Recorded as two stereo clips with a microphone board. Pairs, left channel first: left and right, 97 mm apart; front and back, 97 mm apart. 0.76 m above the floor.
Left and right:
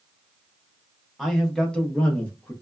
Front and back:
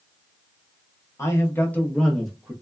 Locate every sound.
1.2 s a man speaking: 5° left, 1.0 m; by 2.5 s 110° left, 0.9 m